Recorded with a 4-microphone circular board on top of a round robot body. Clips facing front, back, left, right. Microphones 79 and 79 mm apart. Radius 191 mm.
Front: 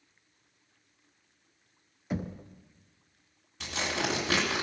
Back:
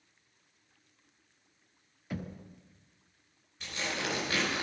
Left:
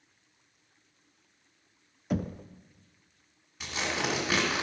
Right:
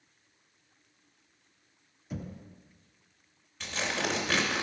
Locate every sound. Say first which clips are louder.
2.1 s knocking: front 5 dB, left 9 dB; 70° left, 0.5 m
3.6 s tearing paper: front 4 dB, even; 10° left, 1.7 m